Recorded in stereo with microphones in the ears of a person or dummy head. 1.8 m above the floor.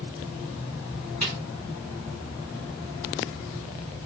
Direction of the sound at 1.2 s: Centre (ahead or behind).